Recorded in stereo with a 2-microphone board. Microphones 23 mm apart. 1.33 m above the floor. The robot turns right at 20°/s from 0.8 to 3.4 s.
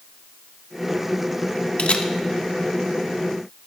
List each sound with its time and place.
1.8 s a camera shutter: 70° left (ahead or behind), 0.9 m